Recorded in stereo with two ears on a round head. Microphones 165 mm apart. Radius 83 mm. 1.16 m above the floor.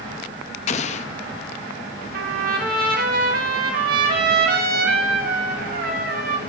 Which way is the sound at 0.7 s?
35° left (ahead or behind).